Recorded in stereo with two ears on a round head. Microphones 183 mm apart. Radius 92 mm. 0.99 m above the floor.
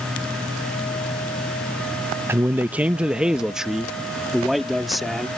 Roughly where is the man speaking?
Centre.